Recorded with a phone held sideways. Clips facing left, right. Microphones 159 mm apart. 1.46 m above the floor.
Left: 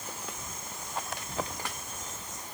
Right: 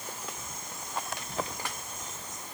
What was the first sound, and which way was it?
Only background noise.